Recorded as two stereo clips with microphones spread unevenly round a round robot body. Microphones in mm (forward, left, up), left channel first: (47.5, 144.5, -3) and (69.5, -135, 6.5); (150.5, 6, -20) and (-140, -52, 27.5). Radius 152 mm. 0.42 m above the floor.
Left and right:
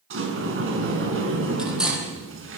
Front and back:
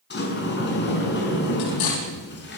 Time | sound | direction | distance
0.1 | a sliding door | 40° right | 5.5 m
1.6 | cutlery clinking | straight ahead | 9 m